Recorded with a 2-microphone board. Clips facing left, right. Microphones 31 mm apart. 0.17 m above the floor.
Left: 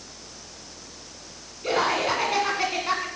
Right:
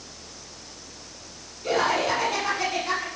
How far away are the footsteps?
I don't hear footsteps.